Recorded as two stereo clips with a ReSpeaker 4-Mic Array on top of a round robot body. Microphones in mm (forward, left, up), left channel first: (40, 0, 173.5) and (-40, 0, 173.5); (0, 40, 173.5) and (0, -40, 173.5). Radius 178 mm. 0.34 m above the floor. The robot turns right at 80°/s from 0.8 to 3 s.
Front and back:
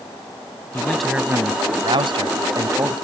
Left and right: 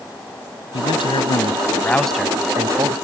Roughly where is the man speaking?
Left.